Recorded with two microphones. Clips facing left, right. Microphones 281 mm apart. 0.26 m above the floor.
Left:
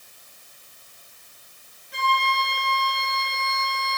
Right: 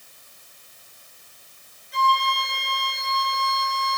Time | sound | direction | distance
1.9 | a flute | 60° left (ahead or behind) | 4 m